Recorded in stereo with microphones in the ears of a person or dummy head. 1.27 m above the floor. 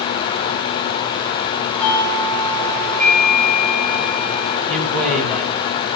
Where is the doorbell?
5° left (ahead or behind), 6.5 m.